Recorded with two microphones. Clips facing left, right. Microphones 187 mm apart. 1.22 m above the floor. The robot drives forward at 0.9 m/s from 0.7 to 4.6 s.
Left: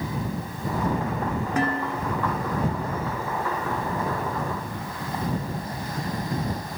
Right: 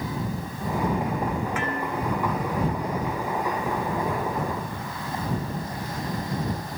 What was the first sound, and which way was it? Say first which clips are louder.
Dishes clattering: left 2 dB; 35° left (ahead or behind).